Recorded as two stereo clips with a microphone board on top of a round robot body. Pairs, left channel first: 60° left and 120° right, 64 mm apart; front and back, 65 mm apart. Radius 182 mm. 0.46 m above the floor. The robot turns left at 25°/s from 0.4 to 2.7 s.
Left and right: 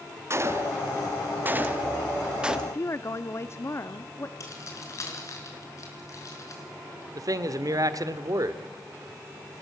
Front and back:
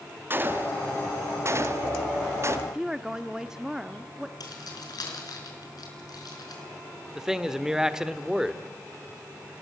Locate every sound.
0.3 s a gunshot: 140° right, 1.6 m; by 2.6 s 165° left, 1.6 m
2.7 s a woman speaking: 105° left, 1.2 m; by 4.3 s 100° left, 1.2 m
4.4 s keys jangling: 20° left, 4.5 m
7.2 s a man speaking: 100° right, 1.7 m